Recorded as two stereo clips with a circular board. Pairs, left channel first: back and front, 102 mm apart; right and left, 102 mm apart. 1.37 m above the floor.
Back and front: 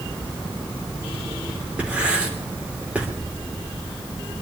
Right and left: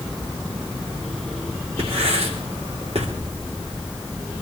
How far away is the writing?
About 3 m.